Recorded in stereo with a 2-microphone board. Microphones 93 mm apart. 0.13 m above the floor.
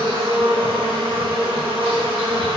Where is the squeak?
No squeak in this recording.